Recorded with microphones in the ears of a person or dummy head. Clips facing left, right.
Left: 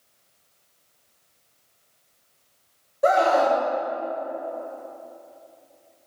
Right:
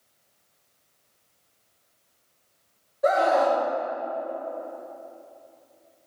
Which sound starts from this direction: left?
A scream, at 3.0 s.